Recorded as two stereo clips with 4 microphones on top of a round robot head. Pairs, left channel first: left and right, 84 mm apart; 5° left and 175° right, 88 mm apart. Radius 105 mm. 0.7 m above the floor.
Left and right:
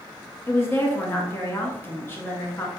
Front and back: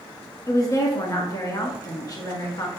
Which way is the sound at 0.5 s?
35° left.